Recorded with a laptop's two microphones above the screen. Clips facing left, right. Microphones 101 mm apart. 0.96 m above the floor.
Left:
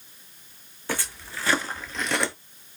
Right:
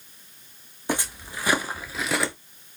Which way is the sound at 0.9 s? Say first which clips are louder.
Right 3 dB; 20° right (ahead or behind).